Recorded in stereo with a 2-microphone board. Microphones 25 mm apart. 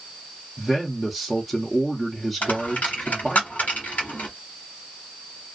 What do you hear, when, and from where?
0.6 s a man speaking: 5° left (ahead or behind), 0.7 m
2.4 s a dropped coin: 90° left, 1.1 m